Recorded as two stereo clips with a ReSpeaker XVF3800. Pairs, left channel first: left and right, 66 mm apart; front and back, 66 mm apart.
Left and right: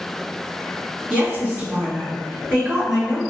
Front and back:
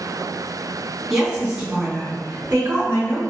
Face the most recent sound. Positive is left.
turn(degrees=-145)